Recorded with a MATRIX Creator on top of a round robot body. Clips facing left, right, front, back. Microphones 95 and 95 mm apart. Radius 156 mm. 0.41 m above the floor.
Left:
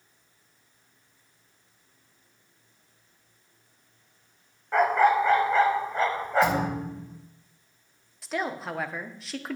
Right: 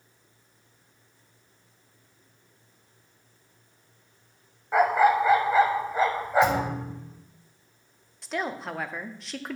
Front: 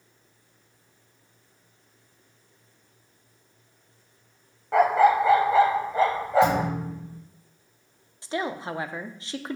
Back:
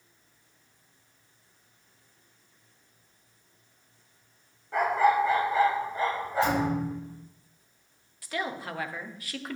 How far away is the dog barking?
About 0.7 m.